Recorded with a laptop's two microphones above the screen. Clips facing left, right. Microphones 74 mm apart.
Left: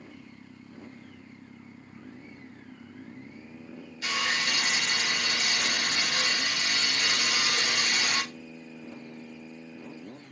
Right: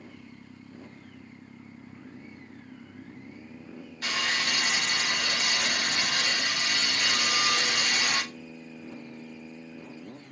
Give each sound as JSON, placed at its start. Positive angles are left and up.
{"t": 4.0, "sound": "sawing", "side_deg": -50, "distance_m": 2.5}